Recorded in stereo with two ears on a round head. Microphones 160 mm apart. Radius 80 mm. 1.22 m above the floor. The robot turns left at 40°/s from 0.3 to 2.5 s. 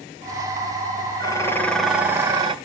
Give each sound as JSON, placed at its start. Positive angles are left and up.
{"t": 1.2, "sound": "dishes clattering", "azimuth_deg": 25, "distance_m": 2.5}